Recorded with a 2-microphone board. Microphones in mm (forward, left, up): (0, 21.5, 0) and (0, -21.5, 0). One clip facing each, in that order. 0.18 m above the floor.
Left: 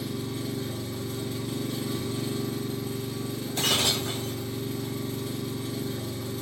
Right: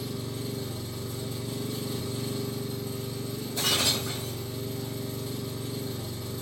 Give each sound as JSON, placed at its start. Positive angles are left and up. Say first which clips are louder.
{"t": 0.0, "sound": "an engine running", "louder": "left 2 dB", "side_deg": 70, "distance_m": 0.9}
{"t": 3.6, "sound": "breaking glass", "louder": "left 2 dB", "side_deg": 60, "distance_m": 1.2}